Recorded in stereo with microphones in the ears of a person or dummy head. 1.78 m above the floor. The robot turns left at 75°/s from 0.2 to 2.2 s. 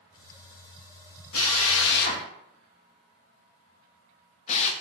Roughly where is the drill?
Left.